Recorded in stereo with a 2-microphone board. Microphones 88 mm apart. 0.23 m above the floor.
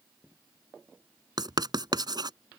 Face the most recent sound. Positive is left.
turn(degrees=-50)  # may be behind; listen again after turning